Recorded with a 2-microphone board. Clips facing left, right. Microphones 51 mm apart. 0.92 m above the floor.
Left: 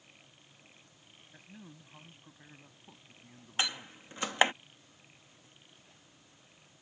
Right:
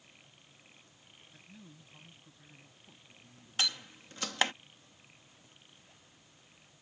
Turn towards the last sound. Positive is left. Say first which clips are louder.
# left 1 dB
turn(degrees=20)  # may be behind; listen again after turning